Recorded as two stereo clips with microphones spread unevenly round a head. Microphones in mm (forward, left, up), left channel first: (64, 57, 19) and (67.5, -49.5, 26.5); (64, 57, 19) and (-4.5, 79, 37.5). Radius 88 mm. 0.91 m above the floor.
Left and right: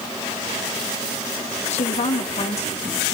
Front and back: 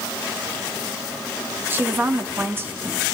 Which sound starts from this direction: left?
A woman speaking, at 1.7 s.